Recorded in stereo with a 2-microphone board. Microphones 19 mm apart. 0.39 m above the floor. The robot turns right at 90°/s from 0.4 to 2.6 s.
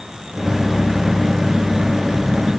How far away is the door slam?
I don't hear a door slam.